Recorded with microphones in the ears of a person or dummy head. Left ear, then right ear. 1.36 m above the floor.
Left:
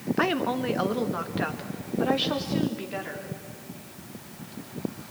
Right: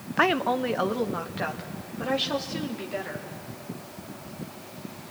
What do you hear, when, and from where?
0.2 s a woman speaking: 25° right (ahead or behind), 0.5 m; by 3.3 s centre (ahead or behind), 3 m